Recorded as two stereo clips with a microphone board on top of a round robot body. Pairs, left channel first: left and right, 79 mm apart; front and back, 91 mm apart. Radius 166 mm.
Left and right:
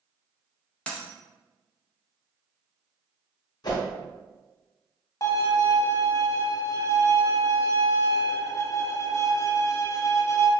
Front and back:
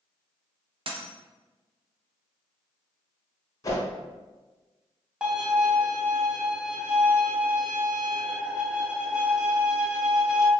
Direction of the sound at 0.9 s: 165° left.